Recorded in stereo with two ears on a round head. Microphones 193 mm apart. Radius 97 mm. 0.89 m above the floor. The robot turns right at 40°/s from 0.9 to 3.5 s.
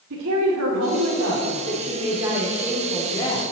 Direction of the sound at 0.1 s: 65° right.